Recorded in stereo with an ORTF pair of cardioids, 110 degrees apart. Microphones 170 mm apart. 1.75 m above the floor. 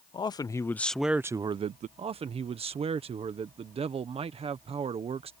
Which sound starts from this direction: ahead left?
A man speaking, at 0.1 s.